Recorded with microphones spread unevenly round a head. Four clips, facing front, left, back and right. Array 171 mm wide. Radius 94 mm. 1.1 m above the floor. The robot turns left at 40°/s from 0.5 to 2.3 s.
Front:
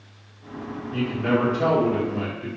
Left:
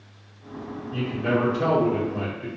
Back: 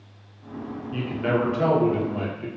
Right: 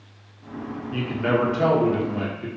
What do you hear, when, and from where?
0.9 s a man speaking: 75° right, 0.9 m; by 2.5 s 130° right, 0.9 m